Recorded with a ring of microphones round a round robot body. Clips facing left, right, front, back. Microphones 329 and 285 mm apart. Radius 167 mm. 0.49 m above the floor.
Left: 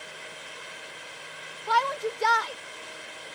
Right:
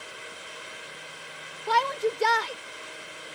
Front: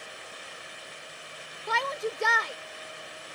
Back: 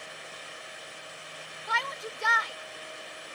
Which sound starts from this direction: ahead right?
A shout, at 1.7 s.